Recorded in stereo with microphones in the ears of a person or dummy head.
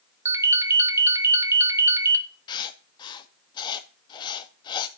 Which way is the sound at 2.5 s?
30° left (ahead or behind).